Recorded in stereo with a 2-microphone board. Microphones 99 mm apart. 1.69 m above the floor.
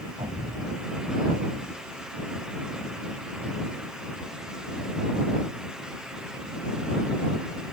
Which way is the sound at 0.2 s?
60° right (ahead or behind).